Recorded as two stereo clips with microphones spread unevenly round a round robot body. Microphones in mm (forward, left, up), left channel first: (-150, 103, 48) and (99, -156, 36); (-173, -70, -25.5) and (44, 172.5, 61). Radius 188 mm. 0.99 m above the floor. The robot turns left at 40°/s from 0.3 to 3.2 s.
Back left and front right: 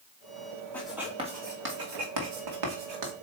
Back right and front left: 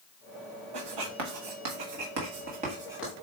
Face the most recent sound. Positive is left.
turn(degrees=-50)